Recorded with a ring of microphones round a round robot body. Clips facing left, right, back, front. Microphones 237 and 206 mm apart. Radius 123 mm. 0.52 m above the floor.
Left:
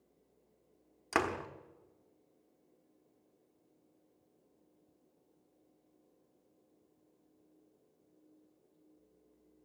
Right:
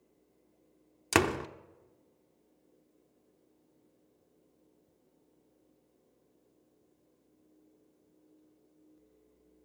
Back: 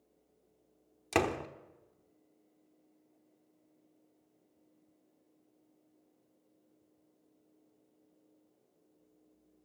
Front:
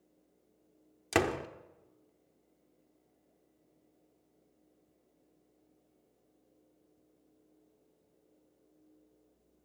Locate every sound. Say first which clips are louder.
1.1 s a door slam: right 7 dB, front 1 dB; 80° right, 1.1 m